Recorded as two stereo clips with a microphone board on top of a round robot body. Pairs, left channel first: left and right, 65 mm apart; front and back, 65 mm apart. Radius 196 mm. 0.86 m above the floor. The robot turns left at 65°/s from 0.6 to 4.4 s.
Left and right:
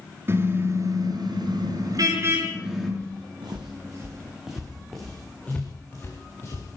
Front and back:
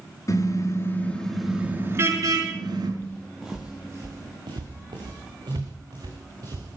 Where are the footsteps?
60° right, 4 m; by 6.8 s 140° left, 4 m.